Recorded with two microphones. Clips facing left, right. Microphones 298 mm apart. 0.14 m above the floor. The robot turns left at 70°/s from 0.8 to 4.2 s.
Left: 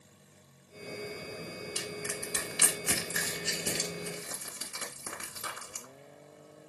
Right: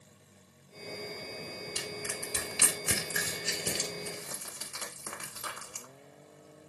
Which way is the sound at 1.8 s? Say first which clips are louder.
Left 1 dB; 25° right (ahead or behind).